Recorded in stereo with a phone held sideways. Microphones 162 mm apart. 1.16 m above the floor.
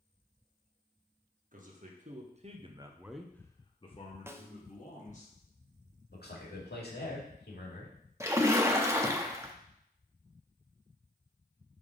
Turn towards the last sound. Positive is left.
turn(degrees=-15)  # may be behind; listen again after turning